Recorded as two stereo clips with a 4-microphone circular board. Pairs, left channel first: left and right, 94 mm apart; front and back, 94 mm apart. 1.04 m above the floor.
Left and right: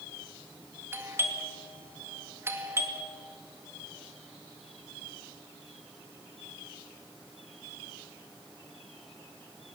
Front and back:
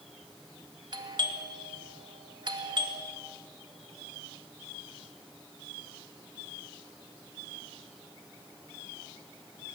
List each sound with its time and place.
0.9 s a doorbell: 150° right, 2 m